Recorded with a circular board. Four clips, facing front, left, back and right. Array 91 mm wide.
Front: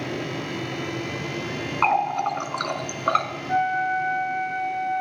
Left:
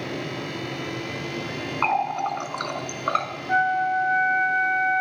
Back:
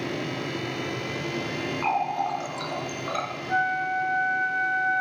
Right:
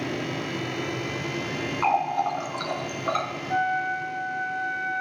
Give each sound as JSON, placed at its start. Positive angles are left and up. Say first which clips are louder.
{"t": 1.8, "sound": "a running tap", "louder": "even, front 5 dB", "azimuth_deg": 30, "distance_m": 1.6}
{"t": 3.5, "sound": "a flute", "louder": "left 5 dB, front 3 dB", "azimuth_deg": 75, "distance_m": 8.5}